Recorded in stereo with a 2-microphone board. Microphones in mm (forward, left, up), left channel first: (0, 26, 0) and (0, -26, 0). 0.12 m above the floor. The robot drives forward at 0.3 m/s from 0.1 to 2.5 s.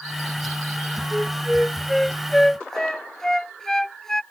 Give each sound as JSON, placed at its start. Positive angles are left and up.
{"t": 1.1, "sound": "a flute", "side_deg": 5}